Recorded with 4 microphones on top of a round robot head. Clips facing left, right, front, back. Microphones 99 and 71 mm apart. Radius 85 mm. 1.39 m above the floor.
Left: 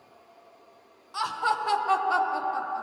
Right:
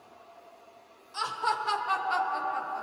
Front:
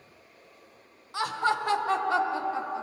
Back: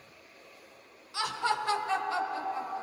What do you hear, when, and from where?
1.1 s laughter: 55° left, 1.4 m; by 2.8 s 15° left, 1.2 m